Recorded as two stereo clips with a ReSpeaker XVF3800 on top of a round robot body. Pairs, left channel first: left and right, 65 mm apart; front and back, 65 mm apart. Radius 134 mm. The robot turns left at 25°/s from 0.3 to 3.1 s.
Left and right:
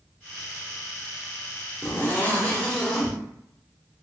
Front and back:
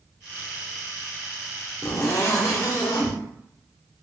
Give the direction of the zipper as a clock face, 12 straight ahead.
11 o'clock.